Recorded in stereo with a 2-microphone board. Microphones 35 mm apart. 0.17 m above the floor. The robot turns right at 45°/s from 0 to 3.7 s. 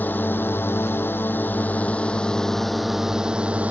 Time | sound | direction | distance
0.0 | a drone | 55° left | ?